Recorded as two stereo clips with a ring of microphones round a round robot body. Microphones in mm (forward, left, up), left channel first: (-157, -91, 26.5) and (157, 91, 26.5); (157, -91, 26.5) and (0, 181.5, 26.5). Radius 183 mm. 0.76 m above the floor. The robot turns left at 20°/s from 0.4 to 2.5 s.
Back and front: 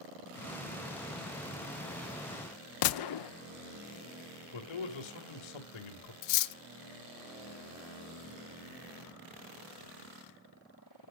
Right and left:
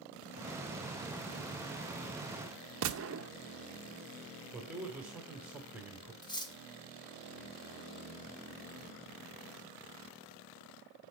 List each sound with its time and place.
2.8 s a gunshot: 175° left, 0.6 m
4.5 s a man speaking: 155° right, 2.5 m
6.2 s cutlery clinking: 140° right, 0.7 m